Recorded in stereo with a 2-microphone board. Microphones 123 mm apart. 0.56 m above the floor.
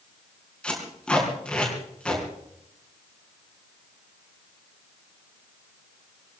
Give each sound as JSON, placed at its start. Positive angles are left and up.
{"t": 0.6, "sound": "tape being pulled", "side_deg": 10, "distance_m": 6.0}